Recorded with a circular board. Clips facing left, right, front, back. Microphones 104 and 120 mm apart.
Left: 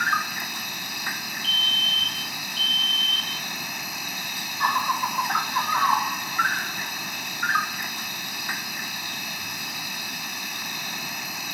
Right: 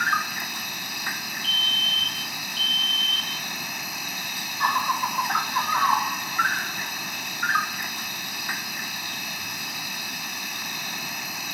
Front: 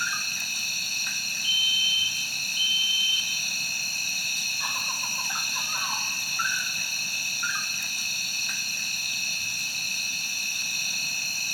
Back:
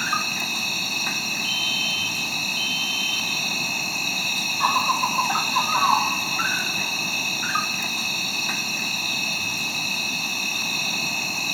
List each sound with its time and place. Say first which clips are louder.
0.0 s an insect: even, back 8 dB; straight behind
1.4 s a fire alarm: left 1 dB, back 6 dB; 145° left